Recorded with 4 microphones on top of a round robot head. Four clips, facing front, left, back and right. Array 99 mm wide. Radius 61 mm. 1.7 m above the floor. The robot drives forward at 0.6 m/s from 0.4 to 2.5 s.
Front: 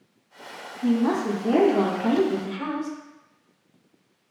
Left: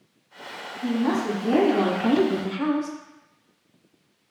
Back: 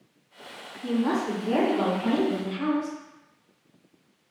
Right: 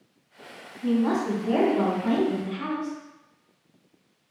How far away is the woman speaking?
About 1.2 m.